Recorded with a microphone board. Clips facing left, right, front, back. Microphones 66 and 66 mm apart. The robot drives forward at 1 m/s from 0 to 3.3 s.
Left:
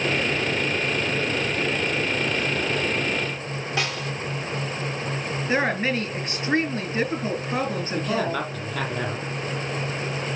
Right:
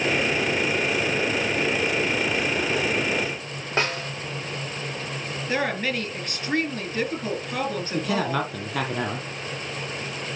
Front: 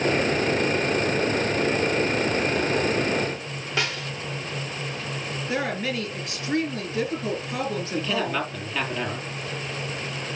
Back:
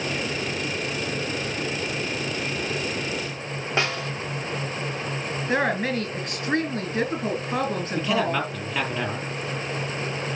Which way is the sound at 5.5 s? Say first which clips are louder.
Left 2 dB, back 4 dB; 160° left.